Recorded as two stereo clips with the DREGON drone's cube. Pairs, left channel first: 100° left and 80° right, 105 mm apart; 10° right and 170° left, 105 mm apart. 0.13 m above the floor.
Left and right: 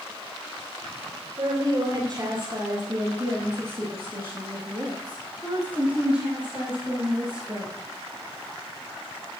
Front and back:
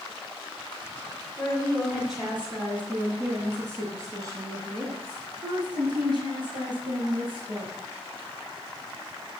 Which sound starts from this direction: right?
A woman speaking, at 1.4 s.